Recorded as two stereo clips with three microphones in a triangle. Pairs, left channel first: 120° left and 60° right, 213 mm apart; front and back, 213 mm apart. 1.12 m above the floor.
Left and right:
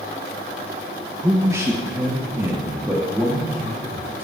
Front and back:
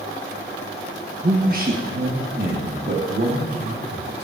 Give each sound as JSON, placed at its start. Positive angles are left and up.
{"t": 1.2, "sound": "a man speaking", "azimuth_deg": -135, "distance_m": 1.2}